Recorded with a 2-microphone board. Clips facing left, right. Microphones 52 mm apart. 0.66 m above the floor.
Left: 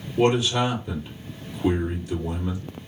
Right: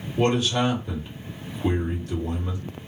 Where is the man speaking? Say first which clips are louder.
Left 1 dB; 5° left (ahead or behind), 1.8 m.